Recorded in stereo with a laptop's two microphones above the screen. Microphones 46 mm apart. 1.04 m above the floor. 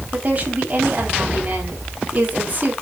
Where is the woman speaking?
40° right (ahead or behind), 2.5 m.